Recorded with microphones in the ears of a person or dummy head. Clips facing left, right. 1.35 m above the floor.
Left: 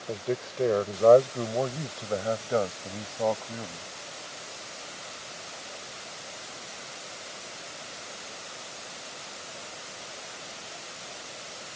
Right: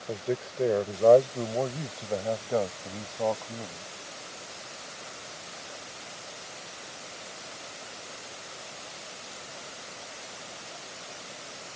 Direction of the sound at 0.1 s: Centre (ahead or behind).